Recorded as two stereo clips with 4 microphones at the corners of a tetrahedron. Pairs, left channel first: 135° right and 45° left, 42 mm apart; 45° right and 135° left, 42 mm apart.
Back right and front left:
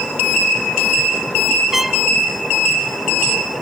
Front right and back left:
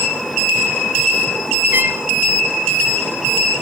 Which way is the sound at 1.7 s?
125° left.